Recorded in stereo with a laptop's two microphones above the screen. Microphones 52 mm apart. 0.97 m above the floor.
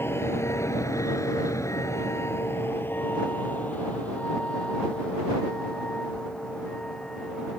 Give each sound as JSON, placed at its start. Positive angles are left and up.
{"t": 0.0, "sound": "a vehicle", "side_deg": 50}